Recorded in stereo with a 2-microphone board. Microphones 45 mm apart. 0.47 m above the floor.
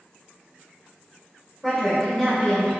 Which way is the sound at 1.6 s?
5° left (ahead or behind).